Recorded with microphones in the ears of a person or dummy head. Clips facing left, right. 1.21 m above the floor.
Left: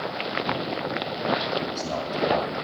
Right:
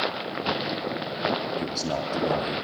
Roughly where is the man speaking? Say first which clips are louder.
Even; centre.